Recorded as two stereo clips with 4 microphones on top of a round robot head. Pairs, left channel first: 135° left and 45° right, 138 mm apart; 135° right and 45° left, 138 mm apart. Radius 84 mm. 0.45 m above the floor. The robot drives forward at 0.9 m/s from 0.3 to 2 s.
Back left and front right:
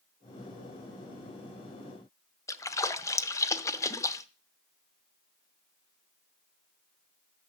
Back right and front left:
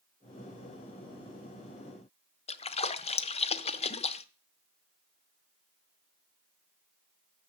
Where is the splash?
165° right, 0.8 m.